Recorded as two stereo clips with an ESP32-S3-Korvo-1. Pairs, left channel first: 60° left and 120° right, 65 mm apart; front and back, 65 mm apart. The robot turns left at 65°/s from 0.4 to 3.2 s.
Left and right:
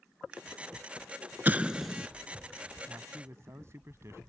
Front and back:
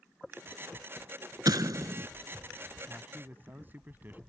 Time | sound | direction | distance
1.4 | an explosion | straight behind | ?
2.9 | a man speaking | 110° right | ?